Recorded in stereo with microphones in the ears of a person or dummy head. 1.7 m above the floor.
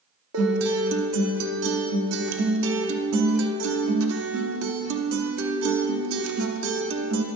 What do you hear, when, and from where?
0.3 s a guitar: 85° right, 1.0 m